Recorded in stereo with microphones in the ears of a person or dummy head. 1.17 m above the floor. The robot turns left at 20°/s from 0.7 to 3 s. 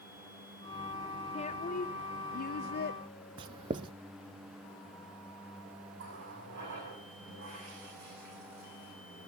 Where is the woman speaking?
140° left, 0.8 m; by 3.0 s 105° left, 0.8 m.